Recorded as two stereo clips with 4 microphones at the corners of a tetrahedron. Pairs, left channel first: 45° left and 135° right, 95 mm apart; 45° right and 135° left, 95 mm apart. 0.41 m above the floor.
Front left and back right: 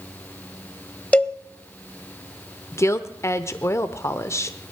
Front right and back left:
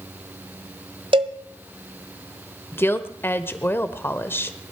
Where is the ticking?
I don't hear ticking.